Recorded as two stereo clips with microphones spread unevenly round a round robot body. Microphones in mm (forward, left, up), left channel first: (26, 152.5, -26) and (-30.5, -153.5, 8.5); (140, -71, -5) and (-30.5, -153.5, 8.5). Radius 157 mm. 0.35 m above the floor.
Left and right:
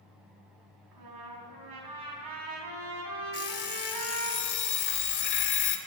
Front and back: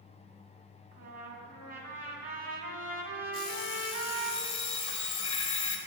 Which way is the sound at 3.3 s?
65° left.